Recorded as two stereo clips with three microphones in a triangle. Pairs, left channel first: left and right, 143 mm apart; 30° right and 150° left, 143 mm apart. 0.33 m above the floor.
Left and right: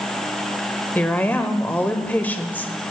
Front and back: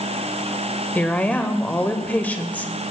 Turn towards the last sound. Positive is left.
turn(degrees=30)